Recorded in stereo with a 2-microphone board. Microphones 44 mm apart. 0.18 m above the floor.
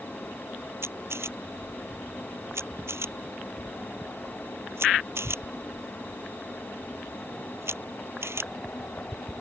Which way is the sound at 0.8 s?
65° right (ahead or behind).